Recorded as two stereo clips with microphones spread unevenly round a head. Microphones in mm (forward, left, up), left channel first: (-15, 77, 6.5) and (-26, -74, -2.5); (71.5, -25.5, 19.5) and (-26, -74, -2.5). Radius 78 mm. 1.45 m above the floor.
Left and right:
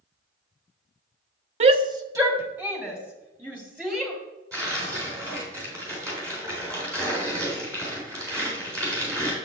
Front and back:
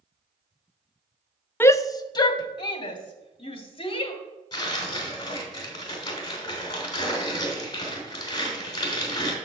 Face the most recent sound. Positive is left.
turn(degrees=-20)